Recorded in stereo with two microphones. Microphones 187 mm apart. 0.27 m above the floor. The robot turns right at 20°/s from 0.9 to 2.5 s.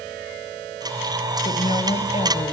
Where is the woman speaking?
35° left (ahead or behind), 1.2 m.